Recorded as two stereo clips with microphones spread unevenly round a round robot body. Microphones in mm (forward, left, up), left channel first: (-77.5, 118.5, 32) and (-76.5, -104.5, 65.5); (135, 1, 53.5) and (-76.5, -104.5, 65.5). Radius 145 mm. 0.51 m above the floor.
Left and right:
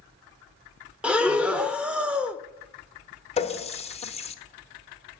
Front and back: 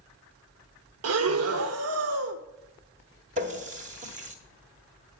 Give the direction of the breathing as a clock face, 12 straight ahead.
6 o'clock.